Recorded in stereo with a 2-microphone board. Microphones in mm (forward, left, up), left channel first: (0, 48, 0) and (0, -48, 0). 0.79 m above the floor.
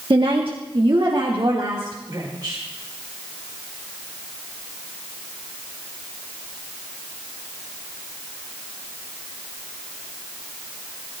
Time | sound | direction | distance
0.1 | a woman speaking | 60° right (ahead or behind) | 1.2 m